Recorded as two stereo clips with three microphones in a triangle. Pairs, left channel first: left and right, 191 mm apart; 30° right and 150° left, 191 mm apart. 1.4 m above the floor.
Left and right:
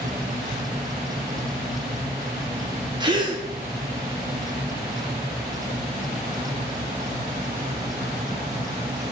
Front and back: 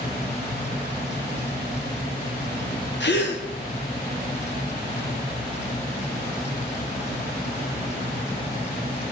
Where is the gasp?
25° right, 1.4 m.